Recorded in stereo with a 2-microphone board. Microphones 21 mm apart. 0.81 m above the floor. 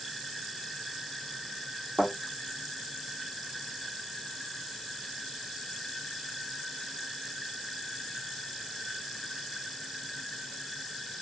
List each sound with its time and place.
2.0 s a thud: 65° right (ahead or behind), 5.5 m